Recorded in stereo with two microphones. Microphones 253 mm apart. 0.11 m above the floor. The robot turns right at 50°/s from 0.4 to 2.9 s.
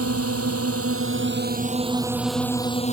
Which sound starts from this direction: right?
A drone, at 0.0 s.